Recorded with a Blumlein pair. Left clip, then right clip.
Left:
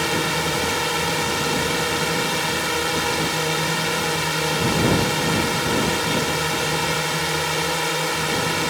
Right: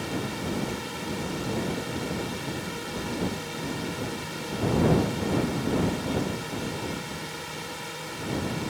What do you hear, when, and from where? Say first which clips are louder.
0.0 s a drone: left 11 dB; 35° left